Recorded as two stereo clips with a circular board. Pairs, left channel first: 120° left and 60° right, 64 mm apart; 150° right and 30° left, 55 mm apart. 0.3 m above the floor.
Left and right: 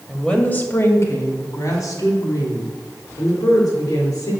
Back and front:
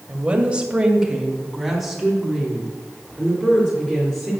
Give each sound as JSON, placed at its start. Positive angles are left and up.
{"t": 0.1, "sound": "a woman speaking", "azimuth_deg": 40, "distance_m": 1.6}